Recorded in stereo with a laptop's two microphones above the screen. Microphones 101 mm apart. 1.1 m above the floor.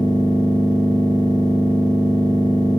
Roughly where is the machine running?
Right.